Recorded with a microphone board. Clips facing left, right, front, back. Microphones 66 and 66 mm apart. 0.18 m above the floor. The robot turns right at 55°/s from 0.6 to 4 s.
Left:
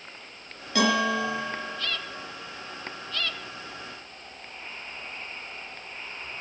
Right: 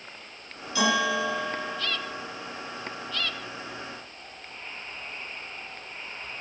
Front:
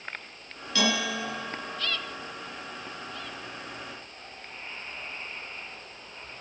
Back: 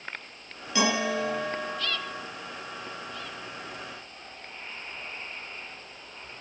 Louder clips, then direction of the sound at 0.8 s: Left 1 dB, back 2 dB; 105° left.